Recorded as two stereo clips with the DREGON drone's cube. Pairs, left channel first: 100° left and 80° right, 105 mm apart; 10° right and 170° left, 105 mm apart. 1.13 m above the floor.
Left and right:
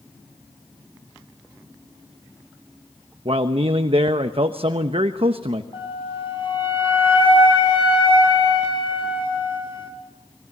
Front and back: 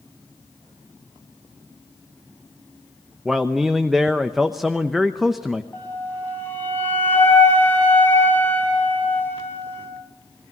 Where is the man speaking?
105° right, 0.9 m.